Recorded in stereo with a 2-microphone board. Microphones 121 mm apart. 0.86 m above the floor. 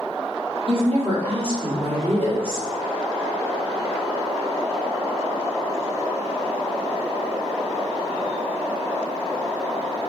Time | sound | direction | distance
0.7 | a woman speaking | 50° right (ahead or behind) | 1.9 m